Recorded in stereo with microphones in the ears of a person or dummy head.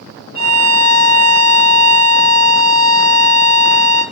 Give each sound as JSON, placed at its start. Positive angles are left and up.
{"t": 0.3, "sound": "a violin", "side_deg": 40, "distance_m": 1.0}